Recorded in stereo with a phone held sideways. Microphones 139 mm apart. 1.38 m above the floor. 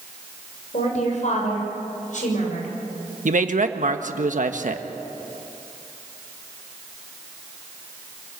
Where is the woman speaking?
60° left (ahead or behind), 6.5 m; by 2.7 s 65° left (ahead or behind), 7.5 m.